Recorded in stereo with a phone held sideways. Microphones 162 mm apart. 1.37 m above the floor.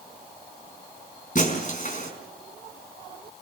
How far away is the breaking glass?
About 4.5 m.